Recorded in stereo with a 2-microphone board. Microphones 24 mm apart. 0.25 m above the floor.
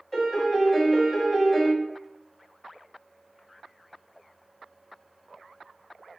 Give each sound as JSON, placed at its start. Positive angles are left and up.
{"t": 0.1, "sound": "a piano", "side_deg": 20, "distance_m": 1.0}